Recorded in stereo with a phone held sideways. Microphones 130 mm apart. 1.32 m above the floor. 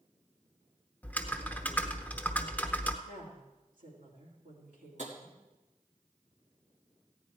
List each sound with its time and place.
1.0 s typing on a keyboard: 10° left (ahead or behind), 0.9 m
3.0 s a woman speaking: 90° right, 3 m
5.0 s tapping: 60° right (ahead or behind), 2 m